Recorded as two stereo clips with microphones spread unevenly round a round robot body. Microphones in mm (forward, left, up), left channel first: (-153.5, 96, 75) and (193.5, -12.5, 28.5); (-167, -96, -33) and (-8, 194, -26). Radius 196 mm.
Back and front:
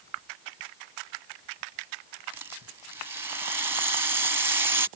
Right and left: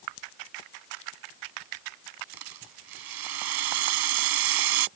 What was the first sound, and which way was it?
A rattle, 65° left.